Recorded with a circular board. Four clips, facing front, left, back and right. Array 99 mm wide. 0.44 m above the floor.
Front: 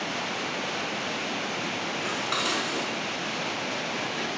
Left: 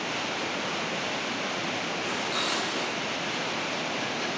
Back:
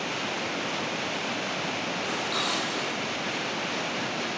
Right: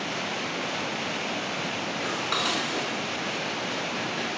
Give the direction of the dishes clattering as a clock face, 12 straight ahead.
2 o'clock.